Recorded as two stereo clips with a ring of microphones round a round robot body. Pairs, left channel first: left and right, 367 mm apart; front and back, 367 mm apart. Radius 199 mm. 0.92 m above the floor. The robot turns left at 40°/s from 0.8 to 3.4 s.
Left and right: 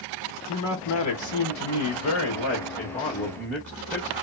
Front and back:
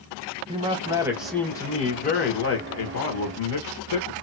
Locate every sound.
0.5 s a man speaking: 110° left, 1.2 m; by 4.1 s 5° left, 1.2 m